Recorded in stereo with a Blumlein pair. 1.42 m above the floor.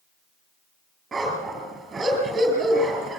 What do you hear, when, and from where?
1.1 s a dog barking: 15° right, 6.5 m